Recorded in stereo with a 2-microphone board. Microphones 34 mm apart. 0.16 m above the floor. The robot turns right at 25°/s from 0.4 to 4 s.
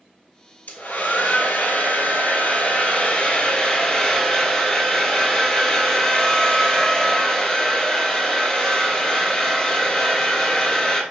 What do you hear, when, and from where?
0.7 s a hair dryer: 75° left, 1.2 m; by 11.0 s 160° left, 1.2 m